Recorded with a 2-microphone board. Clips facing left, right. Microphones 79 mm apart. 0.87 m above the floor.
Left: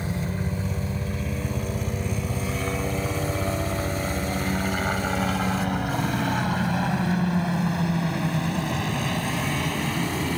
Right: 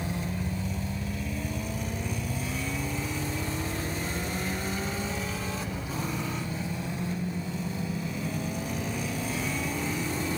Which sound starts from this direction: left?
A helicopter, at 0.0 s.